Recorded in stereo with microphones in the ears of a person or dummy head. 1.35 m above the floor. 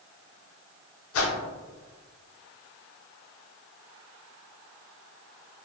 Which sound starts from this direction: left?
A whoosh, at 1.1 s.